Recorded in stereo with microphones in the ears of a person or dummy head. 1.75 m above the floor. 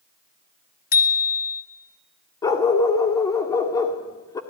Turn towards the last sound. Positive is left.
turn(degrees=15)  # may be behind; listen again after turning